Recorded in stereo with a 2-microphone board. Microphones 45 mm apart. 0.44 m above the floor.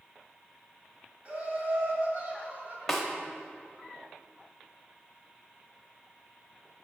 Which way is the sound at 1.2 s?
30° right (ahead or behind).